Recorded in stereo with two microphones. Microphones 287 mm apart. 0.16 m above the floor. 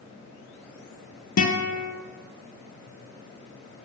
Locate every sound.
1.4 s a guitar: 65° left (ahead or behind), 0.7 m